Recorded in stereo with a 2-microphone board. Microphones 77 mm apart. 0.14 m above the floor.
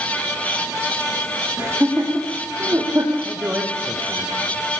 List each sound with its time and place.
1.6 s laughter: 20° right (ahead or behind), 5 m; by 3.1 s 35° right (ahead or behind), 4.5 m
3.2 s a man speaking: 25° right (ahead or behind), 6 m